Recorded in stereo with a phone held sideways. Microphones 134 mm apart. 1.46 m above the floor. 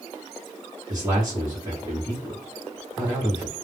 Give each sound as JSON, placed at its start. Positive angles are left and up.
{"t": 0.9, "sound": "a man speaking", "side_deg": -20, "distance_m": 0.9}